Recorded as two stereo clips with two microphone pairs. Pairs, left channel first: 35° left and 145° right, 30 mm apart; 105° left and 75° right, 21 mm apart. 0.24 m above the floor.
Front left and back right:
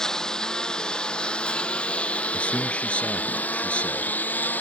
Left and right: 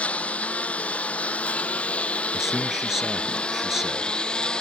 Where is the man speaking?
10° right.